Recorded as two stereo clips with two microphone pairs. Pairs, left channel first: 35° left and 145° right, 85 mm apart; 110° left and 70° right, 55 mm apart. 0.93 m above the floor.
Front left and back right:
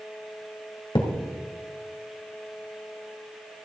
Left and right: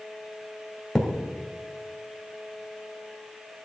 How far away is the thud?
About 2 m.